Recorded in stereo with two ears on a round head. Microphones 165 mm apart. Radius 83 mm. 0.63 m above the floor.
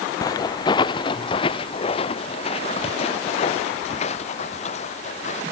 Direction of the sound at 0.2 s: 20° left (ahead or behind).